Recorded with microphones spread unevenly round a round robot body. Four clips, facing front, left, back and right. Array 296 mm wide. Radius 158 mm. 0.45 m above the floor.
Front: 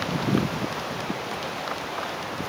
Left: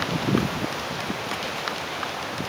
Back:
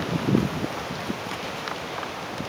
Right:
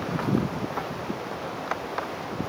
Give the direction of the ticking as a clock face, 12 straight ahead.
I don't hear ticking.